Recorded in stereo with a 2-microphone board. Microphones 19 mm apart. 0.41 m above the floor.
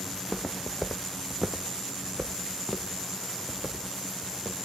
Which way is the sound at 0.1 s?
20° left (ahead or behind).